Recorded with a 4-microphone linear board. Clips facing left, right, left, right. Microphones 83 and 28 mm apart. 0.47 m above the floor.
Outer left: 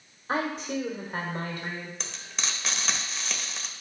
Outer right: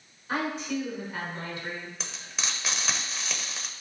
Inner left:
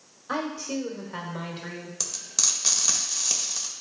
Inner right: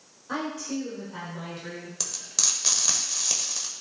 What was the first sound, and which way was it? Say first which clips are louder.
A woman speaking: outer left 1 dB, inner left 1 dB; 35° left (ahead or behind).